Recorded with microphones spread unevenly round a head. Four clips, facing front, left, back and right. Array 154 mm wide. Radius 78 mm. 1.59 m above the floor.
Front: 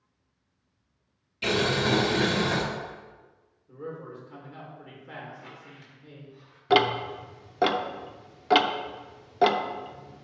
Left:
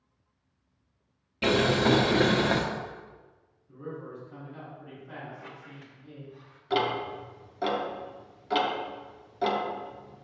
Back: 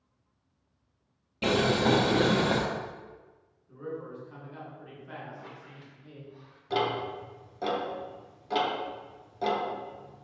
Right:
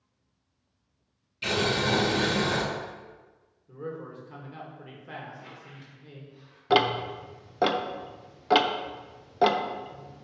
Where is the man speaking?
75° right, 2.5 m.